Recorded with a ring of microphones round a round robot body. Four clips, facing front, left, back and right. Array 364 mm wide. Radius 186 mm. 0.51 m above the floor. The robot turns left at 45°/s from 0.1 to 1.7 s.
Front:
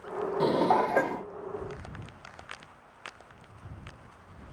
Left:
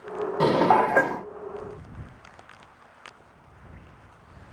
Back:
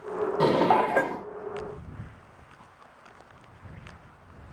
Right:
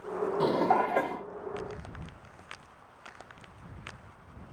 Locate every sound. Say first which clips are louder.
0.4 s dishes clattering: left 7 dB, back 3 dB; 120° left; by 1.3 s 80° left